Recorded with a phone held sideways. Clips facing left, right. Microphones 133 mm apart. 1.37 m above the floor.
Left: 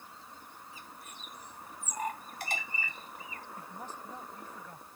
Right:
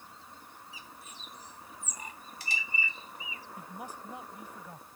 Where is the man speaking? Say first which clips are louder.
Right 2 dB; 15° right (ahead or behind).